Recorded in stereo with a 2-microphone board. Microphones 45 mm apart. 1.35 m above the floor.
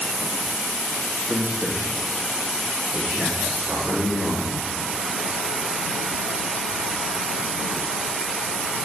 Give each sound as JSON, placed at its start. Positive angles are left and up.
{"t": 1.3, "sound": "a man speaking", "side_deg": -30, "distance_m": 0.8}